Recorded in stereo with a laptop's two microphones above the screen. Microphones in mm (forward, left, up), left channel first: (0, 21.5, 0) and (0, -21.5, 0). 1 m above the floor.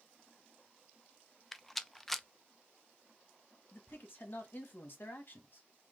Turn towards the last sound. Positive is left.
turn(degrees=50)  # may be behind; listen again after turning